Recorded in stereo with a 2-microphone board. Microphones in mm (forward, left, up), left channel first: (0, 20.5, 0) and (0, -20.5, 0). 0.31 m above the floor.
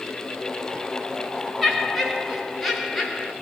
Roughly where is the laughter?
Centre.